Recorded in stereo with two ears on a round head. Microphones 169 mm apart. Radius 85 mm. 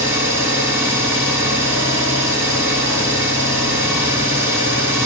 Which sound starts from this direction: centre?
An engine running, at 0.0 s.